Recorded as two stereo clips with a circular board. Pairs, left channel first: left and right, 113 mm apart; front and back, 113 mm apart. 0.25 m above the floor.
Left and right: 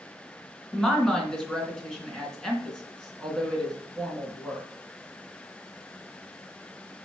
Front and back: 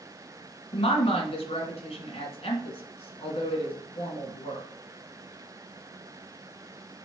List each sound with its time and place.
0.7 s a woman speaking: 5° left, 2.5 m